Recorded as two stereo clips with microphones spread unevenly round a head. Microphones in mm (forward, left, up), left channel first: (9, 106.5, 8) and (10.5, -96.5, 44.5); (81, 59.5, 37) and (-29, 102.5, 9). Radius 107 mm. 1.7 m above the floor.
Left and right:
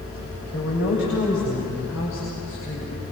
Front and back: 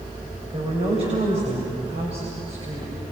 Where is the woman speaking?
125° left, 8.5 m.